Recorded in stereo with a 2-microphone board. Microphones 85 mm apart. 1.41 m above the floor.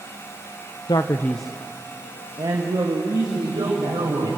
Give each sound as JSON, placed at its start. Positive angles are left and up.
{"t": 0.9, "sound": "a man speaking", "side_deg": 55, "distance_m": 1.0}
{"t": 3.4, "sound": "a man speaking", "side_deg": -75, "distance_m": 5.5}